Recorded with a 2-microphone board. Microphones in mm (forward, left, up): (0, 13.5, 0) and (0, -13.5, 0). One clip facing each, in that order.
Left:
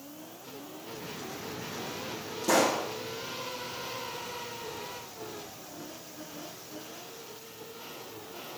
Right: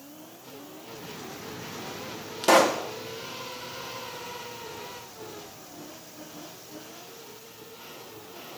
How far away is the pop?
About 0.9 m.